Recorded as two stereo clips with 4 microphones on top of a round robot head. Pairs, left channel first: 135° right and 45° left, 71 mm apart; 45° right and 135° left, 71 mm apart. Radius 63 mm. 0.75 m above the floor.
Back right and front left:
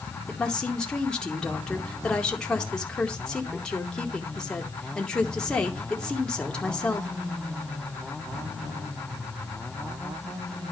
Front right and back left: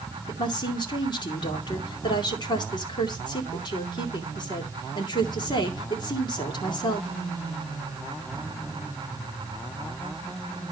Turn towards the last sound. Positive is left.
turn(degrees=-55)